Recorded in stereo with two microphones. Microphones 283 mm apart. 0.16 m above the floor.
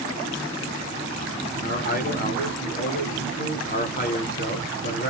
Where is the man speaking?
30° left (ahead or behind), 1.3 m.